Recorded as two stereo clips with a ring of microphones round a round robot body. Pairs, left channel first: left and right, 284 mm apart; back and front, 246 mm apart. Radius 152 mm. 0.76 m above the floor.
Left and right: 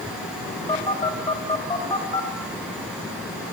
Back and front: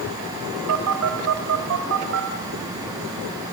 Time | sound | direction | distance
0.7 | a phone buzzing | 15° left | 2.5 m